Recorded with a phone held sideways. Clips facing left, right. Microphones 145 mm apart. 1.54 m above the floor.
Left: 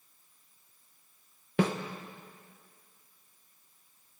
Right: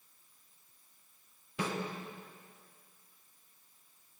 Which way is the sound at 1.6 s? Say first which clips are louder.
Left 9 dB; 70° left (ahead or behind).